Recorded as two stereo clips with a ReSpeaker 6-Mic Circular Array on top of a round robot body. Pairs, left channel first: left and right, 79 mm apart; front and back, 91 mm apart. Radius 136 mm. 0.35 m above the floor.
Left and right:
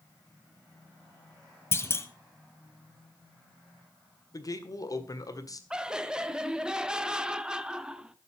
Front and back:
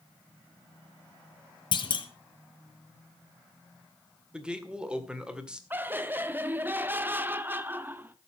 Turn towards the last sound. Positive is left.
turn(degrees=-155)